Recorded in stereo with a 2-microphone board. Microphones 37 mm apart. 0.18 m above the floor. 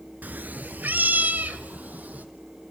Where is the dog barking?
I don't hear a dog barking.